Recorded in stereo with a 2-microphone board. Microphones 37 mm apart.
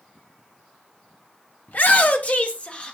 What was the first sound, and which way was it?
A shout, 60° left (ahead or behind).